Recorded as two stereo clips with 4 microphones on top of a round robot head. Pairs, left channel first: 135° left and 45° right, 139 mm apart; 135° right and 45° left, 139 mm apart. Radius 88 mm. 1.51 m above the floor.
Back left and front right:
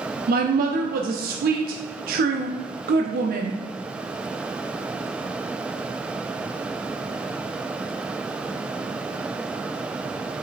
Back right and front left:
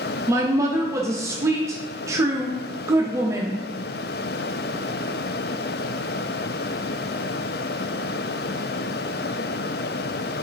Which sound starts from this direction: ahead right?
A woman speaking, at 0.3 s.